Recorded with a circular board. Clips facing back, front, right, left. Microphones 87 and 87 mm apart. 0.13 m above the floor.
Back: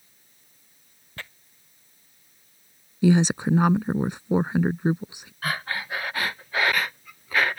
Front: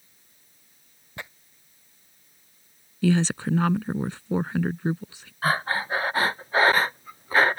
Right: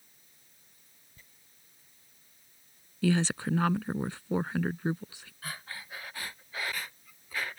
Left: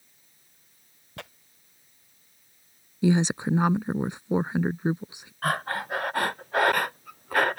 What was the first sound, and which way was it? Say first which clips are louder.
Tearing paper: front 2 dB, left 21 dB; 70° left.